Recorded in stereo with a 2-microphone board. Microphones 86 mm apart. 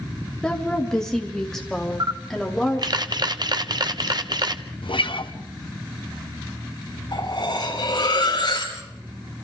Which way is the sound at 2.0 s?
50° right (ahead or behind).